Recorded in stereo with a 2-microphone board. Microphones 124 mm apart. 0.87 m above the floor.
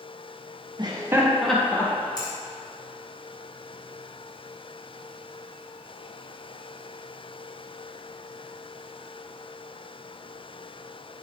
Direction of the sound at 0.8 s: 35° right (ahead or behind).